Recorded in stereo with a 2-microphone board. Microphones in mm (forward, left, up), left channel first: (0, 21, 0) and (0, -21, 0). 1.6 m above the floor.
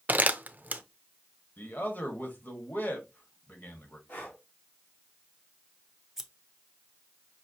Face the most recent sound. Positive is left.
turn(degrees=-10)  # may be behind; listen again after turning